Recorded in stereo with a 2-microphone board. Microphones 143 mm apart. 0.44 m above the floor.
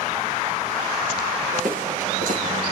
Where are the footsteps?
70° right (ahead or behind), 7.5 m.